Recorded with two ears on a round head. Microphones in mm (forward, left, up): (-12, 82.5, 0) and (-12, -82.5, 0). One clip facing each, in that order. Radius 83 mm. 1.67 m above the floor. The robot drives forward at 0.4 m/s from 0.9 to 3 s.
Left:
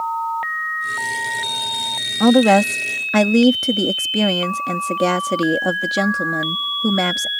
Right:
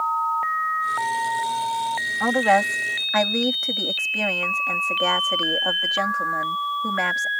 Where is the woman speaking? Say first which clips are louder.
Left 8 dB; 55° left (ahead or behind); by 7.3 s 50° left (ahead or behind).